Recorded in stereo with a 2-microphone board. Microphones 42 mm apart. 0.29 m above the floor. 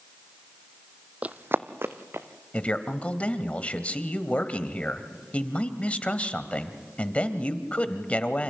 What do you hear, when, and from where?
1.2 s running footsteps: 35° right (ahead or behind), 0.5 m; by 2.3 s 80° right, 1.7 m
2.5 s a man speaking: 35° left (ahead or behind), 1.3 m